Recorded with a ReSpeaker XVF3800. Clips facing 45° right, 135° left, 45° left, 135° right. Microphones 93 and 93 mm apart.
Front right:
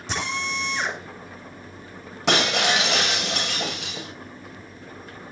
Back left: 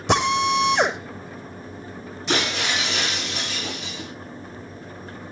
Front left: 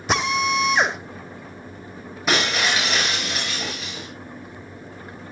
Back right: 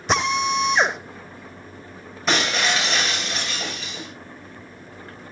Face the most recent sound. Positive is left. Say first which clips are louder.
# front right 3 dB, even
turn(degrees=-40)